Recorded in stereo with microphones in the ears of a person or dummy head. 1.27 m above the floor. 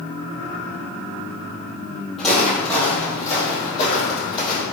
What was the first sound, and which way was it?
Footsteps, 5° left (ahead or behind).